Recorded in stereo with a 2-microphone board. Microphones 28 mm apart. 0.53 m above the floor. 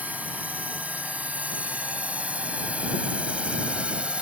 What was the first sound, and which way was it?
A drone, 65° right (ahead or behind).